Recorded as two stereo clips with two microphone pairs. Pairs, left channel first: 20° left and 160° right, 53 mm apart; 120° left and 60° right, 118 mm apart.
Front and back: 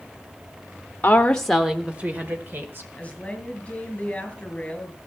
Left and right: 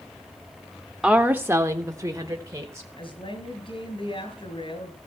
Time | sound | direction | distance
1.0 | a woman speaking | 20° left | 0.9 m
3.0 | a woman speaking | 85° left | 3.5 m